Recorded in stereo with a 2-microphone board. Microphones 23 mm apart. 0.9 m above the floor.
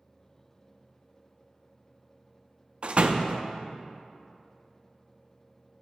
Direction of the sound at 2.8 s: 50° right (ahead or behind).